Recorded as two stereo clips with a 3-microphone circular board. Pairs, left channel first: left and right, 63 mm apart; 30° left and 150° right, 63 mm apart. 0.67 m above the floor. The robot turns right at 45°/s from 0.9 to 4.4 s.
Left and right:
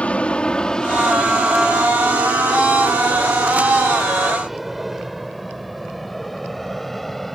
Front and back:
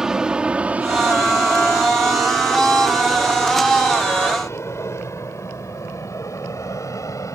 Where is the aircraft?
140° left; by 7.3 s 5° left.